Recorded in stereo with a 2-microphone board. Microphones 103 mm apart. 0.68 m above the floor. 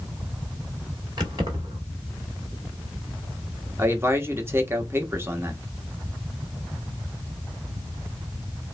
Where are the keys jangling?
45° right (ahead or behind), 1.9 m.